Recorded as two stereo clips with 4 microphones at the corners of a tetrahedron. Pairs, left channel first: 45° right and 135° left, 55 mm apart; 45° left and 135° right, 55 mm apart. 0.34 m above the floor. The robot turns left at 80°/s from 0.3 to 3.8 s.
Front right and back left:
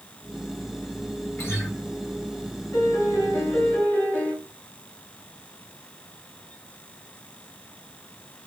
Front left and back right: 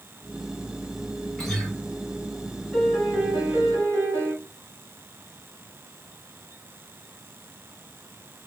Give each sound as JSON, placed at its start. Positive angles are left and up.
{"t": 1.4, "sound": "a guitar", "azimuth_deg": -20, "distance_m": 1.6}
{"t": 2.7, "sound": "a piano", "azimuth_deg": -35, "distance_m": 1.3}